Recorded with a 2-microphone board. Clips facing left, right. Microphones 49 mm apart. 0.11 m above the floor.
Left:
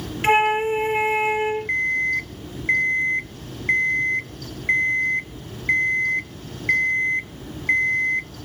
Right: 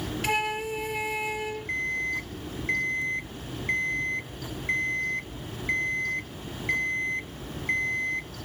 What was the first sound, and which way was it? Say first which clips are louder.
A flute: left 11 dB; 40° left (ahead or behind).